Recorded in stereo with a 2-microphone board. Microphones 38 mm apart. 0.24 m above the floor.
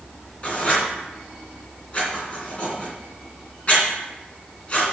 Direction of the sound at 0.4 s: 35° left (ahead or behind).